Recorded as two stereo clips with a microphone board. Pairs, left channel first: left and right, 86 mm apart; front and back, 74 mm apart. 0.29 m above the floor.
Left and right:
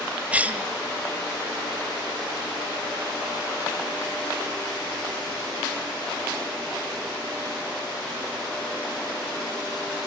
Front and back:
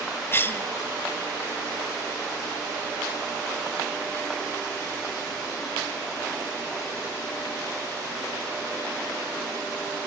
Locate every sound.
0.3 s a cough: 30° right, 1.2 m